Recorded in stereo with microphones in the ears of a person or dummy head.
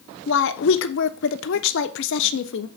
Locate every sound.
0.3 s a woman speaking: 70° left (ahead or behind), 1.1 m